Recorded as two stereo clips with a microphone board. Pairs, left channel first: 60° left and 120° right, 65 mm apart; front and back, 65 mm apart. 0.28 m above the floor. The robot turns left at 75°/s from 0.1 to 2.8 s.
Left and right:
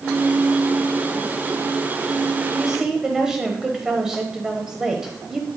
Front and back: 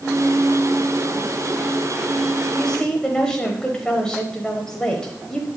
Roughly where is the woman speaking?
Ahead right.